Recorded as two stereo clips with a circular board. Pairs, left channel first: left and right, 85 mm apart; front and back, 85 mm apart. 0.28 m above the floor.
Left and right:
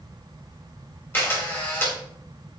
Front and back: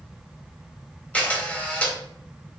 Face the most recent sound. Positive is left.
turn(degrees=60)